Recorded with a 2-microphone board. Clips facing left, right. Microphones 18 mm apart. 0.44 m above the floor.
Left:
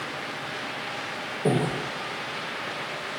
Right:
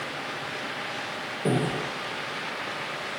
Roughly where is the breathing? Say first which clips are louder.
Left 1 dB; centre.